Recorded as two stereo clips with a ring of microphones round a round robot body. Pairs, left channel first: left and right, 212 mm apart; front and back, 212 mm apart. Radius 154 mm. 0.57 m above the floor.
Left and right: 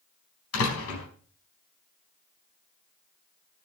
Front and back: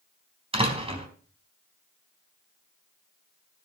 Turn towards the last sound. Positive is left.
turn(degrees=115)